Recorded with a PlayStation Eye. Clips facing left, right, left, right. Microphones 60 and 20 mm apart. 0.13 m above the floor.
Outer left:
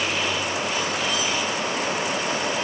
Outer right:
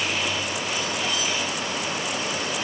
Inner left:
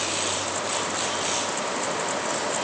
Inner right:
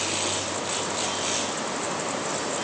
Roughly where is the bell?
I don't hear a bell.